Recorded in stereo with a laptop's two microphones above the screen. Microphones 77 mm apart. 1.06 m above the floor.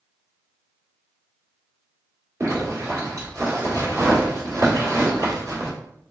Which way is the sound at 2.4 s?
40° right (ahead or behind).